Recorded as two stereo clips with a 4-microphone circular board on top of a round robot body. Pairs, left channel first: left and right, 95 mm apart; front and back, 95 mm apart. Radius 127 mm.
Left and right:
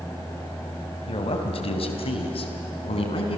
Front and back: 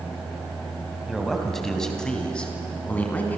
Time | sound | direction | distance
1.1 | a man speaking | 90° left | 3 m